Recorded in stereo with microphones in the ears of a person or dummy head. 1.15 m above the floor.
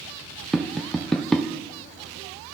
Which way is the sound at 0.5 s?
Centre (ahead or behind).